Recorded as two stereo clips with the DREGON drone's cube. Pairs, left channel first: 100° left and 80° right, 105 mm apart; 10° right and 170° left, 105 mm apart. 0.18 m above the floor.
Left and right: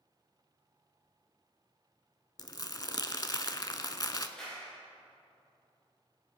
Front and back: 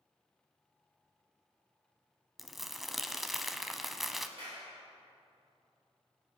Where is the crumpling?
80° left, 0.5 m.